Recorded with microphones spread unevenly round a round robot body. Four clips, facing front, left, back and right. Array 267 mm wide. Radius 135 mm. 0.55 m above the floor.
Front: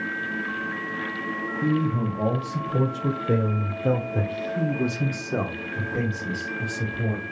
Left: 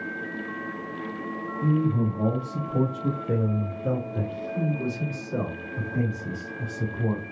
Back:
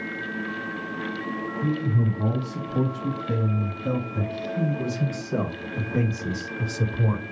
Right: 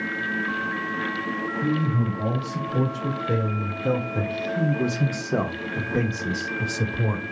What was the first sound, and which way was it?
A man speaking, 5° left.